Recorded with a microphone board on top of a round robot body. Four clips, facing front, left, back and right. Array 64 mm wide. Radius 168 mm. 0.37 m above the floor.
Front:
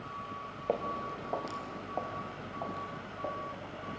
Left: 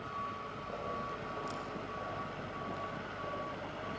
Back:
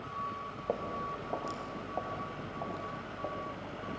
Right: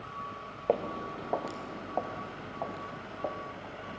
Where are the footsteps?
80° right, 0.9 m; by 3.5 s 85° right, 3.5 m.